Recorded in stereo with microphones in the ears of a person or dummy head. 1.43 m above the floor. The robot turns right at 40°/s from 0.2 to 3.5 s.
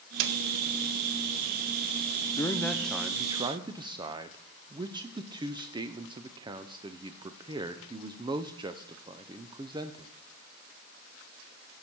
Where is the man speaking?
165° left, 0.5 m; by 10.1 s 150° right, 0.5 m.